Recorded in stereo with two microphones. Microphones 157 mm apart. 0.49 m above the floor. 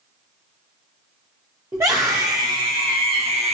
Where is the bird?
No bird in this recording.